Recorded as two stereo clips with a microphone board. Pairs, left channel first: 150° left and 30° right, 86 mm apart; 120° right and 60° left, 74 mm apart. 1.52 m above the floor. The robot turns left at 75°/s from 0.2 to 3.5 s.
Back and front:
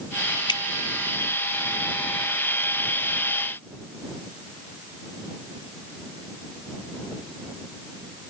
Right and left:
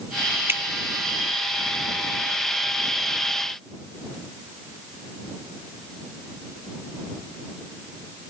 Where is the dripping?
120° left; by 0.6 s 110° left.